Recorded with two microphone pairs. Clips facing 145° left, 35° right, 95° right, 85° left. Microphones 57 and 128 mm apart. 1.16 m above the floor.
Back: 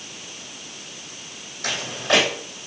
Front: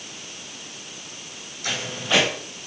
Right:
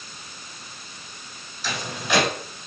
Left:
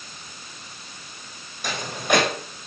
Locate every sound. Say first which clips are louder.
1.6 s footsteps: back 3 dB, left 4 dB; 115° left, 3 m